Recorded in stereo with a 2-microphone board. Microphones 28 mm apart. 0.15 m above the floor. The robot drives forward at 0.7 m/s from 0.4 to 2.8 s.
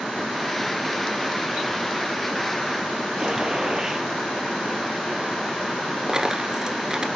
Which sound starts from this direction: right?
A dropped coin, at 6.1 s.